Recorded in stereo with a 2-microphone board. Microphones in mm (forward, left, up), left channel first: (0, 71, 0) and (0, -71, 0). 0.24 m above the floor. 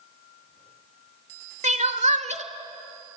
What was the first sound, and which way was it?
Crying, 60° right (ahead or behind).